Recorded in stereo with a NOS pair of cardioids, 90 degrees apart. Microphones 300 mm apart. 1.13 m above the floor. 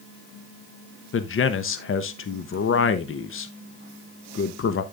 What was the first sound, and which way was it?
A man speaking, 40° left.